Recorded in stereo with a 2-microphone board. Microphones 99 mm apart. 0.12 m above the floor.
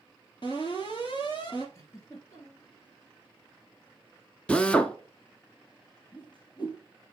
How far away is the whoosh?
About 1.3 m.